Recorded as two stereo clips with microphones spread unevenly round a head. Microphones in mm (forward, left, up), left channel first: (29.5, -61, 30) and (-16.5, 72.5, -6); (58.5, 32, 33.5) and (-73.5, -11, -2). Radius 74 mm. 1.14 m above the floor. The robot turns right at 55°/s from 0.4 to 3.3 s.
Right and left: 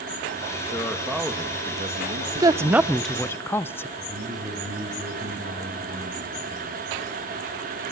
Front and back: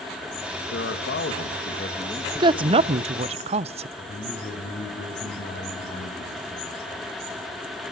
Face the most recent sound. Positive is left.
turn(degrees=45)